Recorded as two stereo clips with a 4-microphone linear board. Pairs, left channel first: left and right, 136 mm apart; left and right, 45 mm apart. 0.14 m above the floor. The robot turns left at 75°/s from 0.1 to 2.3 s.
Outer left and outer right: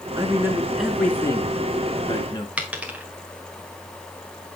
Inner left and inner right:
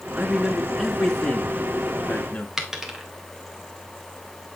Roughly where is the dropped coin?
Centre.